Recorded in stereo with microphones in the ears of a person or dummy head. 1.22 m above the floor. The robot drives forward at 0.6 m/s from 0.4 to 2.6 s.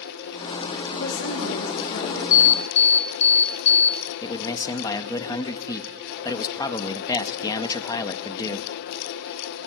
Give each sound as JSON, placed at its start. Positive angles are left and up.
{"t": 0.9, "sound": "a woman speaking", "side_deg": 80, "distance_m": 8.5}
{"t": 2.3, "sound": "an alarm", "side_deg": 40, "distance_m": 0.5}
{"t": 4.2, "sound": "a man speaking", "side_deg": 20, "distance_m": 1.2}